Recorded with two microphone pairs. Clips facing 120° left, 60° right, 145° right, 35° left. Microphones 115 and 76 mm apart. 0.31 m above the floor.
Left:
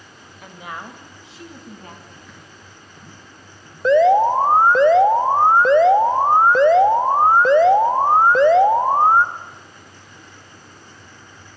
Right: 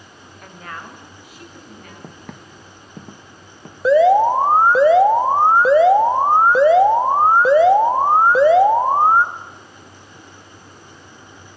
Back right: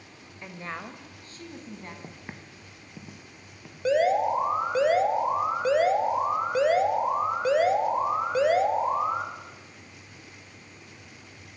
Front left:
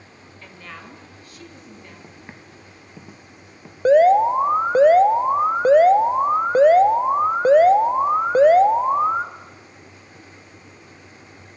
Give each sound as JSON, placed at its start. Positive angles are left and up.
{"t": 0.4, "sound": "a woman speaking", "azimuth_deg": -155, "distance_m": 1.2}
{"t": 2.0, "sound": "footsteps", "azimuth_deg": -65, "distance_m": 0.6}
{"t": 3.9, "sound": "an alarm", "azimuth_deg": 20, "distance_m": 0.8}